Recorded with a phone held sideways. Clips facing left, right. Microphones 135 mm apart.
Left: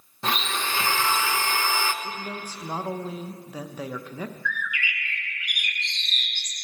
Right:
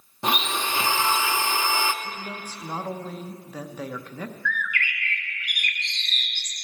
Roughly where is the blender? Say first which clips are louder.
Right 2 dB; centre.